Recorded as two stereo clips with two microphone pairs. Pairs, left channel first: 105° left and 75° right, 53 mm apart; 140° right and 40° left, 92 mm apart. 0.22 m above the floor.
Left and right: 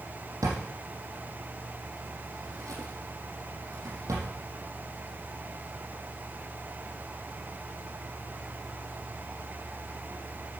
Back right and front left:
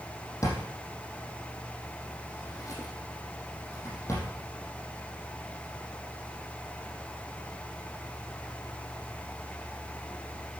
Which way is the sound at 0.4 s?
85° right.